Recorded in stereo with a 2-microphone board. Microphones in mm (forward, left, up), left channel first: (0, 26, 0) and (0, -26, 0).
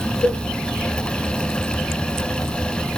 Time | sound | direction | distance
0.2 | a cowbell | 70° left (ahead or behind) | 1.5 m